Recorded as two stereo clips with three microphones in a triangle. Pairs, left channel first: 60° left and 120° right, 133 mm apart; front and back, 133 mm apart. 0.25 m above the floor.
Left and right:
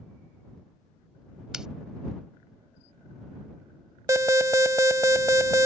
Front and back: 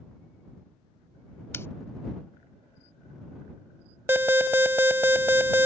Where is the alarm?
135° right.